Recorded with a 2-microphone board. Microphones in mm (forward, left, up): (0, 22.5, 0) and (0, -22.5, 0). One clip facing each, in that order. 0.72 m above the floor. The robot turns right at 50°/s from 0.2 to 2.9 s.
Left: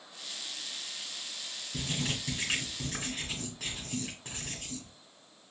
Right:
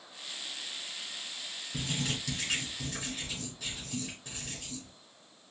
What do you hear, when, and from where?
1.7 s writing: straight ahead, 1.5 m; by 4.9 s 55° left, 1.5 m